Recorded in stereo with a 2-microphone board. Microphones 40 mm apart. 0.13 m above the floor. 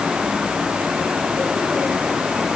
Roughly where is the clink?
I don't hear a clink.